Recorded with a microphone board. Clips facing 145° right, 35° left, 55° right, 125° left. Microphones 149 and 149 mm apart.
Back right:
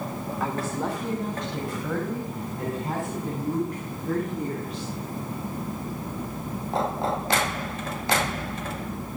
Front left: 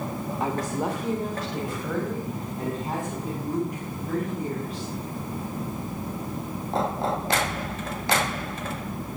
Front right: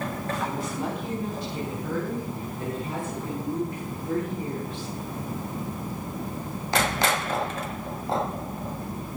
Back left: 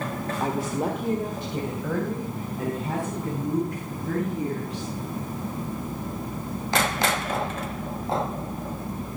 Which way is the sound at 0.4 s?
95° left.